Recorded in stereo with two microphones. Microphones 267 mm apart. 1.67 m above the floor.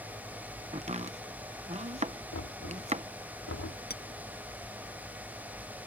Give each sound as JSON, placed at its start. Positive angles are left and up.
{"t": 0.7, "sound": "chopping", "side_deg": -25}
{"t": 2.3, "sound": "knocking", "side_deg": 60}
{"t": 3.9, "sound": "a clink", "side_deg": 35}